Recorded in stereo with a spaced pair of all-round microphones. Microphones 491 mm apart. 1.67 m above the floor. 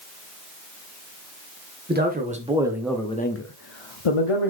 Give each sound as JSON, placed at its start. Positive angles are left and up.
{"t": 1.9, "sound": "a man speaking", "side_deg": -20, "distance_m": 2.0}